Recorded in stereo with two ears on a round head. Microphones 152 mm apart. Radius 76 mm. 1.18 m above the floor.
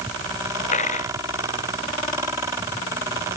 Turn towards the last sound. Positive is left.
turn(degrees=45)  # may be behind; listen again after turning